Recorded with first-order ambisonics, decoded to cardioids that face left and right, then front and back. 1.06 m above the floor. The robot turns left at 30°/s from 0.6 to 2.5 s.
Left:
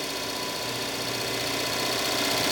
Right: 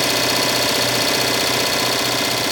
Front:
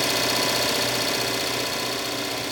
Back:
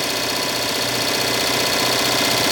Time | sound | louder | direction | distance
0.0 | an engine running | right 13 dB, back 1 dB | 100° right | 0.8 m